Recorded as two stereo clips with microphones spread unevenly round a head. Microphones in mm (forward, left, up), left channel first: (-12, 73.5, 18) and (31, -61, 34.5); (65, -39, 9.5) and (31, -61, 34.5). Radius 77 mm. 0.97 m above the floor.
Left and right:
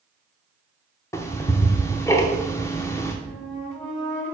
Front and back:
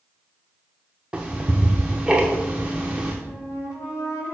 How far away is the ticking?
About 0.7 m.